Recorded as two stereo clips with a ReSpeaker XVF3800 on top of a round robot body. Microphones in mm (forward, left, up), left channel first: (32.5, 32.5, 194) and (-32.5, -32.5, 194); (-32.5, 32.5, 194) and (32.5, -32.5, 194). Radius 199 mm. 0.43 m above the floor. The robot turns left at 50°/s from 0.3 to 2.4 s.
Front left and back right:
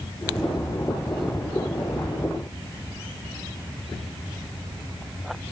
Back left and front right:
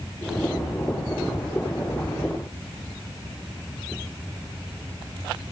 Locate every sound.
Only background noise.